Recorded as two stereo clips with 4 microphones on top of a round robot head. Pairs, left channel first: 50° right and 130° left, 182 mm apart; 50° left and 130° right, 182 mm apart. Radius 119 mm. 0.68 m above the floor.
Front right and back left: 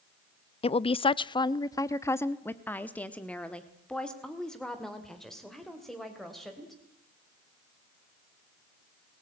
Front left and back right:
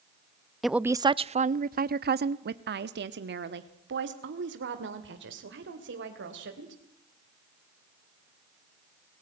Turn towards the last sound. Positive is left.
turn(degrees=-140)